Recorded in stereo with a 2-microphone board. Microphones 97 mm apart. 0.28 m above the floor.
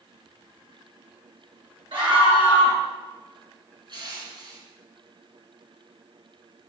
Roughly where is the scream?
Right.